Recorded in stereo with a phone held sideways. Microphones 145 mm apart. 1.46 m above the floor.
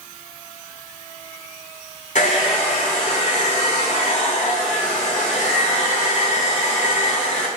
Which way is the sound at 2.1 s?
60° left (ahead or behind).